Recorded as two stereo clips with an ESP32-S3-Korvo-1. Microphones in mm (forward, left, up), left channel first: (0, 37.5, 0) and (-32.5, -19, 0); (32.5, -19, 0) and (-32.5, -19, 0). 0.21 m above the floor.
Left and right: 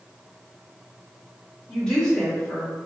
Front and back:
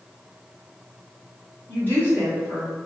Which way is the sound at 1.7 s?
5° right.